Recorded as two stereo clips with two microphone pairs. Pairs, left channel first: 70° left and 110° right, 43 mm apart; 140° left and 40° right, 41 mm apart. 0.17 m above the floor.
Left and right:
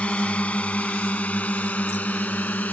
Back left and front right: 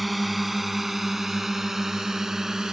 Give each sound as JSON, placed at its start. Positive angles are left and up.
{"t": 0.0, "sound": "a drone", "azimuth_deg": 50}